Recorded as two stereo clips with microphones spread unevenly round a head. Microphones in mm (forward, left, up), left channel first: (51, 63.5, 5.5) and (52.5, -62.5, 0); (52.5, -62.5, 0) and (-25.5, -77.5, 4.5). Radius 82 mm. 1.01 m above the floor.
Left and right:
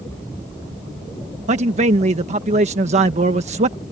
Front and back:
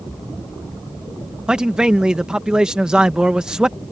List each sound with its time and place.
1.5 s a man speaking: 90° right